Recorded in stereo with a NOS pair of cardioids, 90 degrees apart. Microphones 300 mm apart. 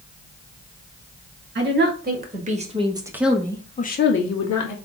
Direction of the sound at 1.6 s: 35° right.